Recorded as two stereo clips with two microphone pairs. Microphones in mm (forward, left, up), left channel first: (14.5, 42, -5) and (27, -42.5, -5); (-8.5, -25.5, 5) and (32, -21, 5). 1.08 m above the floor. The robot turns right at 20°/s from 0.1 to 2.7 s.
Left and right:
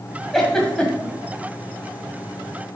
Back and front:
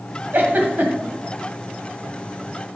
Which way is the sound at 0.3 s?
10° left.